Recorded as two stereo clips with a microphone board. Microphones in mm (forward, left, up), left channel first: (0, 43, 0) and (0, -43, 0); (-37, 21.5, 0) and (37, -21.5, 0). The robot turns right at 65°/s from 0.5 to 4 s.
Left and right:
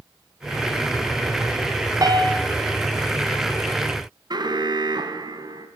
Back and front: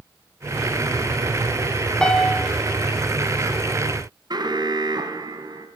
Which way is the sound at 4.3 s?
60° right.